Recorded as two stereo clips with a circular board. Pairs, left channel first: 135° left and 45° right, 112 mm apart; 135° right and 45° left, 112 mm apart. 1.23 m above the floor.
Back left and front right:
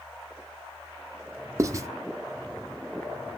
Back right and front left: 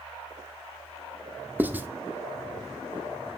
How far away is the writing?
About 0.9 m.